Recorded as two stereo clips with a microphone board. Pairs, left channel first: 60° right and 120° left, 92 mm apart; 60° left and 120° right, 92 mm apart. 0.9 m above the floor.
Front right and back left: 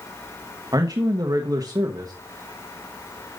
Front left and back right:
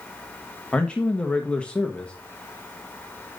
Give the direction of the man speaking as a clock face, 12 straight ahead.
8 o'clock.